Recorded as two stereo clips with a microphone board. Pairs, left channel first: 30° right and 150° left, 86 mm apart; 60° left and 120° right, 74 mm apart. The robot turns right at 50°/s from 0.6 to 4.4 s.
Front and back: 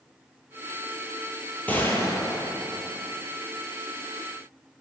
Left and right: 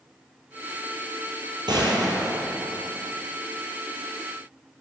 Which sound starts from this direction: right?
A gunshot, at 1.7 s.